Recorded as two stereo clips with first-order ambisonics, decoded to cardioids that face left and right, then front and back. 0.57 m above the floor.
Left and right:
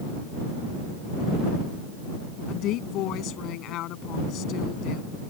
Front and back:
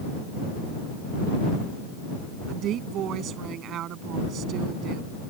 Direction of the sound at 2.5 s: 130° left.